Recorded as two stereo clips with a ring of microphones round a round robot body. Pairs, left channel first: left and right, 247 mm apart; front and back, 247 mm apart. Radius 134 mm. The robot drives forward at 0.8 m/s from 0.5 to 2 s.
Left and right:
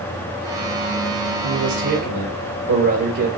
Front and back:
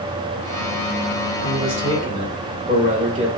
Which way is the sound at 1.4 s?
110° right.